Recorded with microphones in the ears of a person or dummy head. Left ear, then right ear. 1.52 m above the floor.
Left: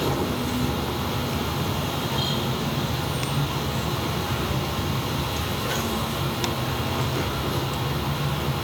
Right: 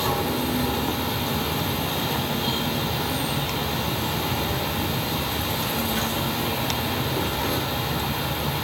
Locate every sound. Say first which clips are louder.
0.0 s an insect: right 2 dB; 25° right (ahead or behind), 3.5 m